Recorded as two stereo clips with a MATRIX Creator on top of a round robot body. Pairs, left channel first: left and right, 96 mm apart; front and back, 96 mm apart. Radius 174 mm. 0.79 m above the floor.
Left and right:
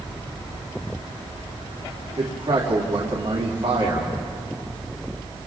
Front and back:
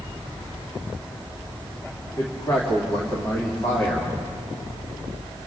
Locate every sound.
2.2 s a man speaking: 55° right, 3 m